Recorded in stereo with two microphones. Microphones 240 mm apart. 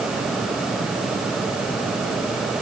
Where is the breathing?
No breathing in this recording.